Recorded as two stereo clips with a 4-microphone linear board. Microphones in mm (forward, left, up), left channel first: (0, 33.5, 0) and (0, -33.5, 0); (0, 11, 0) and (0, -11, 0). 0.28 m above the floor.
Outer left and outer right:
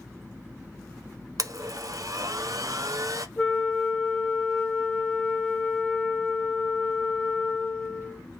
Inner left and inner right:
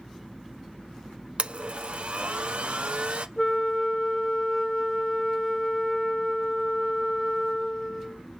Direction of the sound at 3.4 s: 20° left (ahead or behind).